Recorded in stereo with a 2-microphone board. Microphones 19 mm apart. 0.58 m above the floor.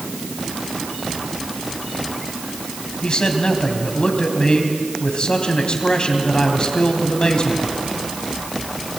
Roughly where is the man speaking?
Left.